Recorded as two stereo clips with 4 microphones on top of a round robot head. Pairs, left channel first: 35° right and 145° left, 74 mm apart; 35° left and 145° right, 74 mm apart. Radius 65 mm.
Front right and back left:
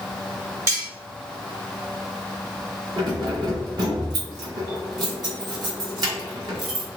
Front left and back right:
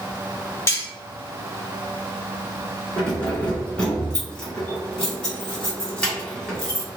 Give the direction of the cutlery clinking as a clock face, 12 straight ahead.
9 o'clock.